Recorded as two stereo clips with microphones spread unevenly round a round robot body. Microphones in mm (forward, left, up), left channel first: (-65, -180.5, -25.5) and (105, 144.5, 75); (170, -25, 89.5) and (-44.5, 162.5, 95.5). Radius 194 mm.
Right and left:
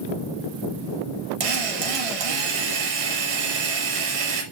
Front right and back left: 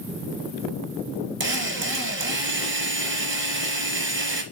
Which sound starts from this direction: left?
A drill, at 1.4 s.